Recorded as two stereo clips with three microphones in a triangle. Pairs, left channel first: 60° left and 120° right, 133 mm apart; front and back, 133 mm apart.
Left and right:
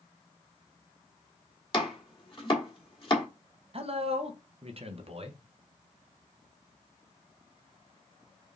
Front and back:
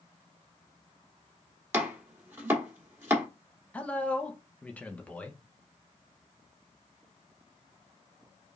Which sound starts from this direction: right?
A man speaking, at 3.7 s.